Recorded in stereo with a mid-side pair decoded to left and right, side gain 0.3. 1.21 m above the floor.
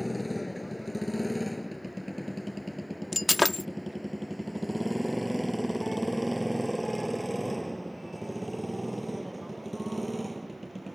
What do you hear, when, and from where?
0.0 s a motorcycle: 15° left; by 11.0 s 20° right
3.1 s breaking glass: 25° left